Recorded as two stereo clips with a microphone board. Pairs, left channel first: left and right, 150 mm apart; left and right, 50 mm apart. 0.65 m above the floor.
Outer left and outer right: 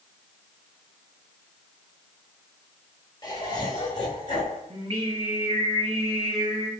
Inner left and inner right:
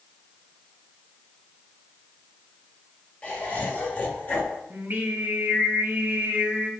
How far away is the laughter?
About 2.5 m.